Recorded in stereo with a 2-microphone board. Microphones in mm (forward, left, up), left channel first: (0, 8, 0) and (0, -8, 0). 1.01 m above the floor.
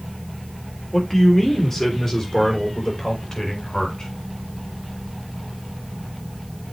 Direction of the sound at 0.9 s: 10° left (ahead or behind).